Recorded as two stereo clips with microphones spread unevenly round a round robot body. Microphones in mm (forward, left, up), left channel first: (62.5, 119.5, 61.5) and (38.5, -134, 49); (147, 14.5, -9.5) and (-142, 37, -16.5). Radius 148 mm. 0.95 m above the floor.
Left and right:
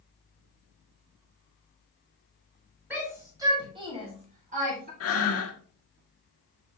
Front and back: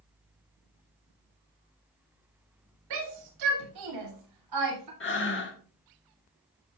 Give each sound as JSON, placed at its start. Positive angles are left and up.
{"t": 2.9, "sound": "a shout", "azimuth_deg": 180, "distance_m": 6.0}
{"t": 5.0, "sound": "breathing", "azimuth_deg": 50, "distance_m": 1.7}